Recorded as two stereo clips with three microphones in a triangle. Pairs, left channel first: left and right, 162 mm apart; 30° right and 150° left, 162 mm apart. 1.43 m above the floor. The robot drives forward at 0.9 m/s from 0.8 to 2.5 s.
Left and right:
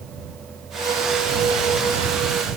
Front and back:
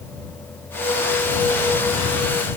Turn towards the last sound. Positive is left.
No sound to turn to.